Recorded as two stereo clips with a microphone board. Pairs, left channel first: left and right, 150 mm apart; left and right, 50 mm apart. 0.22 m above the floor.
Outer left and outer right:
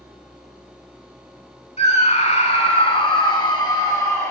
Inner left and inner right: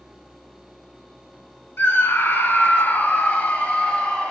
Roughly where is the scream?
Left.